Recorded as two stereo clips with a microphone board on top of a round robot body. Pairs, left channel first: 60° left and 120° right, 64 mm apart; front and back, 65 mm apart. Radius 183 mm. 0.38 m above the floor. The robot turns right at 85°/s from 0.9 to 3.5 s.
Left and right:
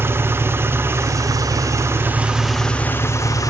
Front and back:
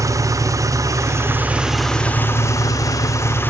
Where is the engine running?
165° right, 1.6 m; by 3.5 s 55° left, 1.6 m.